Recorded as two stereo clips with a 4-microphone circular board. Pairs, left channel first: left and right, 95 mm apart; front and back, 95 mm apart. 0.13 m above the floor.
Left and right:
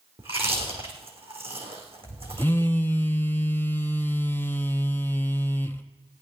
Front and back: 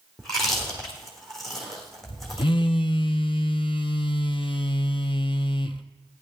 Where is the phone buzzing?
20° left, 0.8 m.